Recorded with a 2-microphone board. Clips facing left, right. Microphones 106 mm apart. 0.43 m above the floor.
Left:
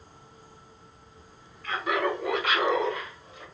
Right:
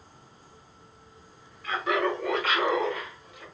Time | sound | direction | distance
1.6 | laughter | 5° right (ahead or behind) | 1.3 m